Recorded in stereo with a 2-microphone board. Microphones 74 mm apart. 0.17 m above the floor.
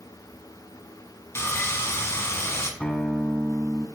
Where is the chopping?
No chopping in this recording.